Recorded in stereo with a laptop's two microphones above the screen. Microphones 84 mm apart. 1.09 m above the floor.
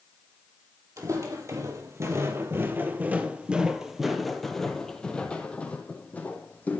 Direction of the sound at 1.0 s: 40° right (ahead or behind).